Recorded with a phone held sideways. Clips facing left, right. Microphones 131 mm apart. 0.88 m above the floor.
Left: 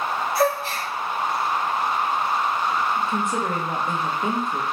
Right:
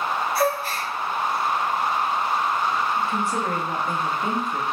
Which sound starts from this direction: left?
A gasp, at 0.3 s.